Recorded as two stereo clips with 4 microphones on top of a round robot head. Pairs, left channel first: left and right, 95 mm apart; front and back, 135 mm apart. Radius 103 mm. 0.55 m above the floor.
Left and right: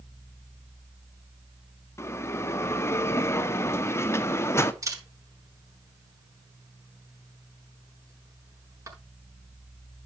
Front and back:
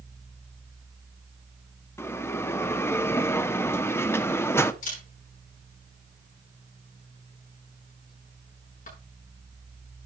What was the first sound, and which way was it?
A bell, 55° left.